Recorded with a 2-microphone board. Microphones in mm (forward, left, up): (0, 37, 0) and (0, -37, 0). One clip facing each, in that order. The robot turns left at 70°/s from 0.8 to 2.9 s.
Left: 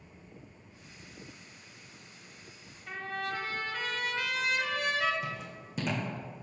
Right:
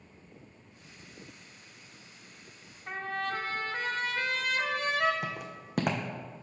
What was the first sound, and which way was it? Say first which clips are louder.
A trumpet: right 2 dB; 40° right (ahead or behind).